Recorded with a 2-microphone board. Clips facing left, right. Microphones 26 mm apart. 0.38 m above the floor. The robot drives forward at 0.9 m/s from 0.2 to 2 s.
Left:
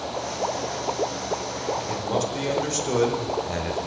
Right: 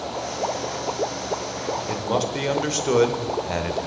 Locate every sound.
1.9 s a man speaking: 25° right (ahead or behind), 0.9 m